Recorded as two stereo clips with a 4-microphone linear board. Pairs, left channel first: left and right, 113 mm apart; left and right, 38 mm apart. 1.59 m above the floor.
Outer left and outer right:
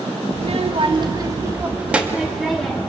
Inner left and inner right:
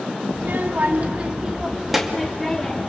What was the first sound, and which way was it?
A child speaking, 70° right (ahead or behind).